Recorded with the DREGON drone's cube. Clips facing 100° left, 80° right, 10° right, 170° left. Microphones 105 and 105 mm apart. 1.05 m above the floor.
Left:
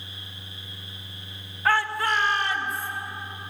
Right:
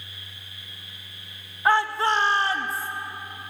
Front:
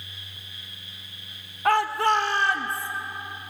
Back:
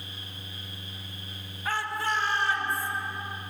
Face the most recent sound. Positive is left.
turn(degrees=-30)